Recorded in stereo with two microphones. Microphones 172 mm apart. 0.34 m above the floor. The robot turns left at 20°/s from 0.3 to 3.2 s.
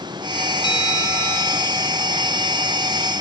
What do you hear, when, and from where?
0.6 s a bell: 25° left (ahead or behind), 6.5 m; by 1.6 s 5° left (ahead or behind), 6.5 m